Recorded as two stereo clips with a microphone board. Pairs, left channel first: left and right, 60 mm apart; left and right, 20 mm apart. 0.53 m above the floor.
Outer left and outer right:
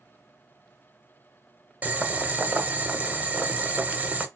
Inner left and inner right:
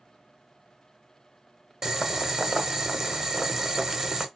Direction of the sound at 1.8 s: 25° right (ahead or behind).